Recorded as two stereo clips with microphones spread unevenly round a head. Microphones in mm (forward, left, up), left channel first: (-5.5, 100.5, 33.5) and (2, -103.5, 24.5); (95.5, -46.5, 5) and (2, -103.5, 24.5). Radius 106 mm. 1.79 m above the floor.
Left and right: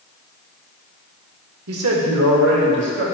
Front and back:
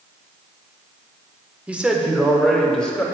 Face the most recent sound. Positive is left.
turn(degrees=-50)